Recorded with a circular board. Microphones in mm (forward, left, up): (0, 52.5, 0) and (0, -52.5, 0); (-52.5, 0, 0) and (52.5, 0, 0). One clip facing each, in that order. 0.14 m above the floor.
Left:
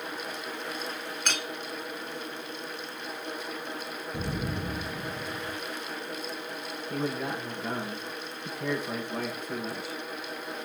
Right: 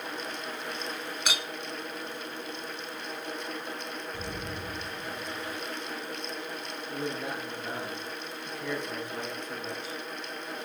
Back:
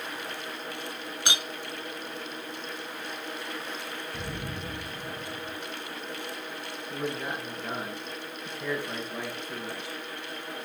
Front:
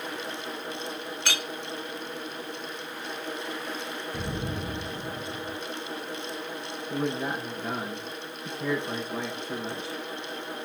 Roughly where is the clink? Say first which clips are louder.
Even, back 1 dB; behind right.